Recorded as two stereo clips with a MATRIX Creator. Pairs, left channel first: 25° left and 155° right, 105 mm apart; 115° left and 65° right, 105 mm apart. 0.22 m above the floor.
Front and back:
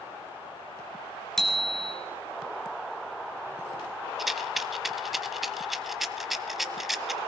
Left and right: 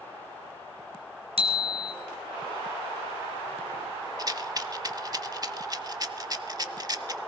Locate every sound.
1.4 s a bicycle bell: 65° right, 2.5 m
4.2 s a rattle: 70° right, 0.6 m